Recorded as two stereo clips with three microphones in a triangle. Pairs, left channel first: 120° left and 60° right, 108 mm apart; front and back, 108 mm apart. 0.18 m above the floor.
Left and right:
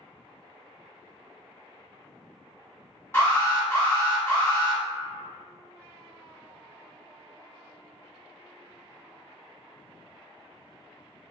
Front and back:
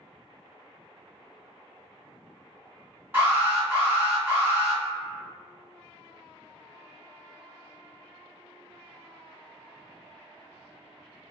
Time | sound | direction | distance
3.1 | an alarm | 140° left | 1.9 m